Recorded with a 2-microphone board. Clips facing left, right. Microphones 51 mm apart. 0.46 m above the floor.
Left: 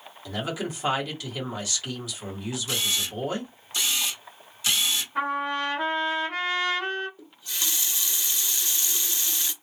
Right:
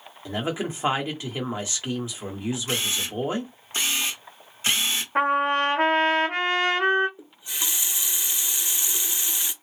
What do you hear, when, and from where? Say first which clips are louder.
0.2 s a man speaking: right 3 dB; 30° right (ahead or behind), 1.2 m
2.7 s a camera shutter: right 1 dB; 40° right (ahead or behind), 0.9 m
5.2 s a trumpet: right 7 dB; 60° right (ahead or behind), 1.0 m
7.2 s a running tap: right 1 dB; 20° right (ahead or behind), 0.6 m